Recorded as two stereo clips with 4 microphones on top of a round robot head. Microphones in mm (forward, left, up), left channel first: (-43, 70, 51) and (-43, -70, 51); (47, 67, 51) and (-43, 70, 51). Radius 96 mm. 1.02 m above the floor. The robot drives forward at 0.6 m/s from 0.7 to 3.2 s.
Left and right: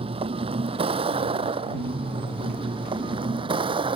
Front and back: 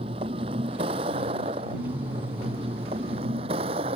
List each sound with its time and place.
0.0 s a vehicle: 140° right; by 4.0 s 145° right